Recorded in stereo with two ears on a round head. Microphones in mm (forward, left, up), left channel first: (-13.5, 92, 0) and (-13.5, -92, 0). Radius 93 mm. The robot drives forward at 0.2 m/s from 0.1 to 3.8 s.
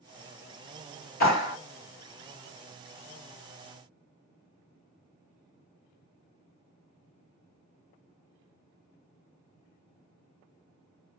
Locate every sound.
1.2 s a clap: 50° left (ahead or behind), 1.6 m